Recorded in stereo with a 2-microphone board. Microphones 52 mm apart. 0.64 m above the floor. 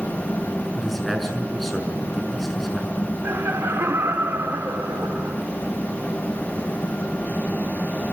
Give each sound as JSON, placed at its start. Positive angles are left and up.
{"t": 0.8, "sound": "a man speaking", "side_deg": 5, "distance_m": 6.5}
{"t": 3.2, "sound": "laughter", "side_deg": -60, "distance_m": 2.0}